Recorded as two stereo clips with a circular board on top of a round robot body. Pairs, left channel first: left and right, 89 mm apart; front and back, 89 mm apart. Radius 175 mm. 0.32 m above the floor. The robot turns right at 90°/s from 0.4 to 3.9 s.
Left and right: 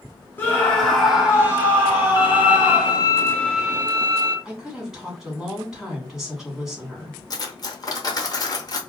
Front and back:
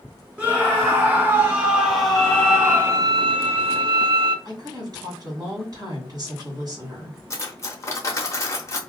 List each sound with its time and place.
0.4 s a scream: 125° left, 1.5 m; by 3.0 s 5° left, 1.5 m
2.2 s a violin: 50° left, 0.7 m; by 4.3 s 150° right, 0.7 m
4.5 s a woman speaking: 170° right, 1.9 m
7.3 s cutlery clinking: 55° left, 0.9 m